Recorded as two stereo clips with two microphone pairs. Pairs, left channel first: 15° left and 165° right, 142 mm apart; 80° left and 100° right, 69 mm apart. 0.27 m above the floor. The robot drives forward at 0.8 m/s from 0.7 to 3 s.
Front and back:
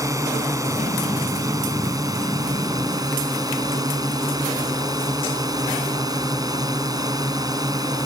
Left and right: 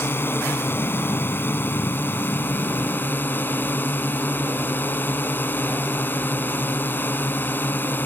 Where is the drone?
130° left; by 8.1 s 135° left.